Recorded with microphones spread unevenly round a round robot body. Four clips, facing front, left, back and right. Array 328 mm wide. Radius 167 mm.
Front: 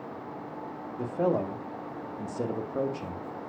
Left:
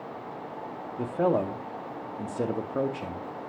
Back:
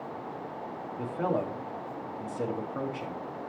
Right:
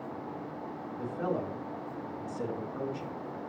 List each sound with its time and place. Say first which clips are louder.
1.0 s a man speaking: left 8 dB, front 3 dB; 75° left, 1.5 m